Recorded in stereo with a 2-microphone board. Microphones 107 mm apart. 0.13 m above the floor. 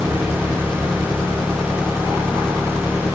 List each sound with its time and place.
0.0 s an engine running: 5° left (ahead or behind)